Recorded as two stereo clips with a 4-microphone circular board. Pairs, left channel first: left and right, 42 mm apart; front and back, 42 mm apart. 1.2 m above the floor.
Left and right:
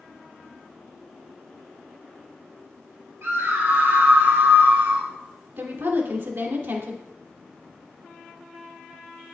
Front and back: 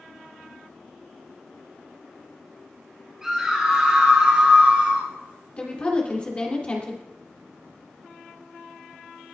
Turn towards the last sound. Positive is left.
turn(degrees=-60)